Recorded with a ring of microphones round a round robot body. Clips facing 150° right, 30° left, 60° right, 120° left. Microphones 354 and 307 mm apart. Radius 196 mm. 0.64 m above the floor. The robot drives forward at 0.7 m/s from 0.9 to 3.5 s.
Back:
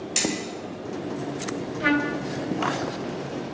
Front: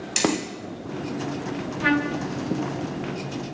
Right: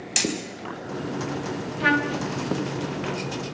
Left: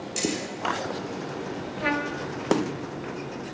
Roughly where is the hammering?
Ahead right.